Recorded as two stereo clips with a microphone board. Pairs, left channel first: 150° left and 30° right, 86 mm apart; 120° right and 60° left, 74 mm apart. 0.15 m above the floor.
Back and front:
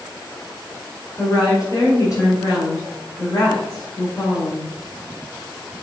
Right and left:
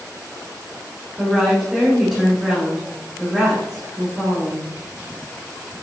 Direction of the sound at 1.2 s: 150° left.